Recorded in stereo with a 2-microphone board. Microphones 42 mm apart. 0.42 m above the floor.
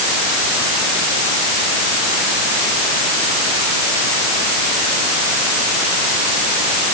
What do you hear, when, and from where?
Only background noise.